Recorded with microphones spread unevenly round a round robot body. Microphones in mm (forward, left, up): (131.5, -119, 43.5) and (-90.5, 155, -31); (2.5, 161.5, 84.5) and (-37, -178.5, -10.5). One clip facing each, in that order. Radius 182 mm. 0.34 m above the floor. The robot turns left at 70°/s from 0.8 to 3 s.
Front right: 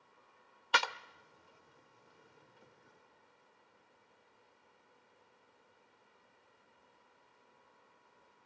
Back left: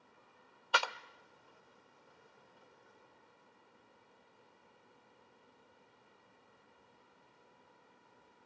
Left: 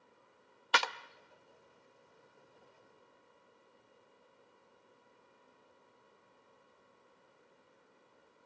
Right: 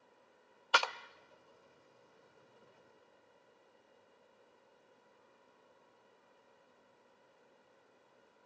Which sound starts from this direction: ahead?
A clap, at 0.7 s.